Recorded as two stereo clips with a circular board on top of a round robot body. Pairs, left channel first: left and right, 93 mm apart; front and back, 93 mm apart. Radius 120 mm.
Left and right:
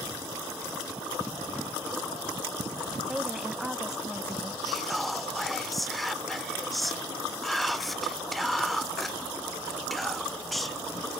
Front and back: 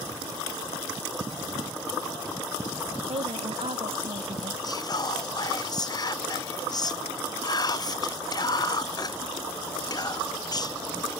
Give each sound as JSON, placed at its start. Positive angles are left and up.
{"t": 3.1, "sound": "a woman speaking", "azimuth_deg": -175}
{"t": 4.6, "sound": "whispering", "azimuth_deg": 0}